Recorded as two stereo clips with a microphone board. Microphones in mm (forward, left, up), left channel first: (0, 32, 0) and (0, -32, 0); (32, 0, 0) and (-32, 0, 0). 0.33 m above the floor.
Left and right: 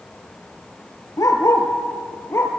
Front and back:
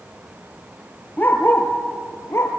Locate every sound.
1.2 s a dog barking: 60° left, 3 m; by 2.5 s 45° left, 3.5 m